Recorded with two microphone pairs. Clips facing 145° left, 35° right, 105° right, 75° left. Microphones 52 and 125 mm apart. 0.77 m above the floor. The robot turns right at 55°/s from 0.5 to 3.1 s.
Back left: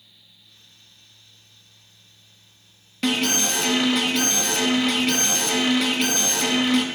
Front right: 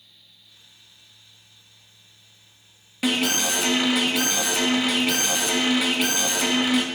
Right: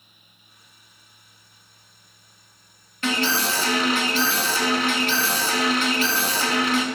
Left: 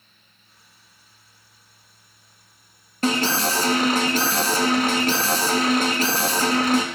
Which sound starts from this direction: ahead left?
An alarm, at 3.0 s.